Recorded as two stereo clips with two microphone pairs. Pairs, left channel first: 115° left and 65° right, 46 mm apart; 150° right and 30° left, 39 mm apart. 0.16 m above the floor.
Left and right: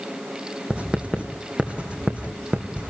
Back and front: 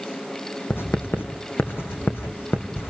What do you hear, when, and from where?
0.7 s writing: 130° right, 2.5 m